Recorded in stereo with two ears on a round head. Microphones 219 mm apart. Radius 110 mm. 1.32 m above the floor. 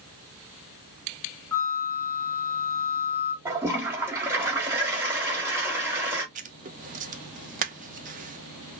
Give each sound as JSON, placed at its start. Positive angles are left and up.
{"t": 1.5, "sound": "a flute", "side_deg": 10, "distance_m": 1.1}
{"t": 3.5, "sound": "a toilet flushing", "side_deg": -10, "distance_m": 2.0}
{"t": 6.3, "sound": "writing", "side_deg": -35, "distance_m": 0.8}